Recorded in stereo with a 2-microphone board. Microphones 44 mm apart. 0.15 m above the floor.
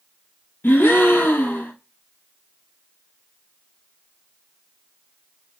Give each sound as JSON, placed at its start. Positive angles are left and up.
{"t": 0.6, "sound": "a gasp", "side_deg": 65, "distance_m": 0.6}